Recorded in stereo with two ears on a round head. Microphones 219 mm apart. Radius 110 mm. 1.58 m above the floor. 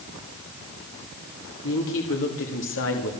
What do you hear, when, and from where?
1.6 s a woman speaking: 60° left (ahead or behind), 3.5 m; by 3.1 s 55° left (ahead or behind), 3 m